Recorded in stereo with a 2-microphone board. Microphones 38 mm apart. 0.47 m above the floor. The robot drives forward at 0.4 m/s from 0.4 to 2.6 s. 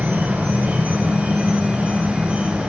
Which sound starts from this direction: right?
An insect, at 0.0 s.